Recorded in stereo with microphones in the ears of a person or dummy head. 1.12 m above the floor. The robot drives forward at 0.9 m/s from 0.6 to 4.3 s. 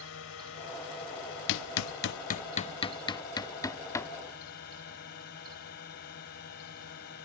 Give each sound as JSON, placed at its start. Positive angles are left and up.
{"t": 0.0, "sound": "a drone", "side_deg": 65}
{"t": 1.5, "sound": "hammering", "side_deg": 75}